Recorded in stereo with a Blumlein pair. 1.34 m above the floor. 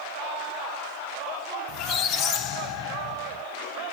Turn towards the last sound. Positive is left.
turn(degrees=35)